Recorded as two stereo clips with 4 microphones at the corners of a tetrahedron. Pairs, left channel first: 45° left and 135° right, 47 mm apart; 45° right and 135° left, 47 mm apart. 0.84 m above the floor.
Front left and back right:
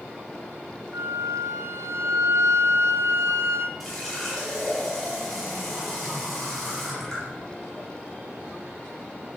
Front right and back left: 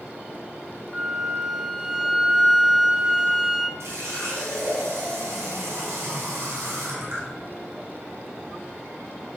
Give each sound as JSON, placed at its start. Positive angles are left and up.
{"t": 0.9, "sound": "a flute", "azimuth_deg": -145, "distance_m": 0.7}
{"t": 3.8, "sound": "a running tap", "azimuth_deg": 135, "distance_m": 4.0}